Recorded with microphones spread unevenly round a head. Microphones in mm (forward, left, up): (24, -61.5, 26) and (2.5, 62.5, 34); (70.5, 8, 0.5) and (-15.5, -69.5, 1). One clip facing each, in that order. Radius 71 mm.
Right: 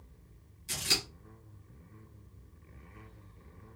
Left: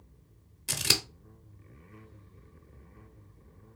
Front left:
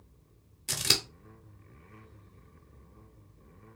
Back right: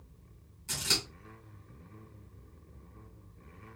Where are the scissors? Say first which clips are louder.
Left 3 dB, front left 2 dB; 85° left, 0.7 m.